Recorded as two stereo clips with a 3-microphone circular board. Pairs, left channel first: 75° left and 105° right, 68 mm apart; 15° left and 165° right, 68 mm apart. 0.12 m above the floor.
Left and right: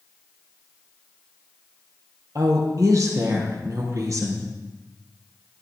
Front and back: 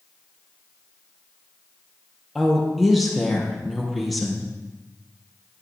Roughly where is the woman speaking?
Right.